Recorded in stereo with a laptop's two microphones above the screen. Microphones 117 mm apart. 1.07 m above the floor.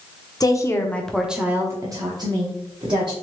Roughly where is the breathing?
I don't hear breathing.